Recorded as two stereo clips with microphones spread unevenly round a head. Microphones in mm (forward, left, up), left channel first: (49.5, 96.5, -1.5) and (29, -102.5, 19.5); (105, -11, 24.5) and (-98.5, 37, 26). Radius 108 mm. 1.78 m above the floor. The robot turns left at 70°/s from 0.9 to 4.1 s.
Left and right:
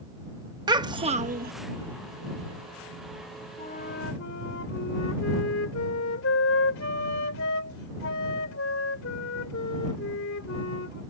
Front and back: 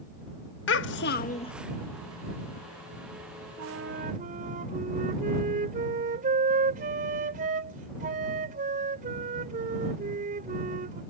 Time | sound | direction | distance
0.7 | a child speaking | 35° right | ?
3.6 | a flute | 155° left | ?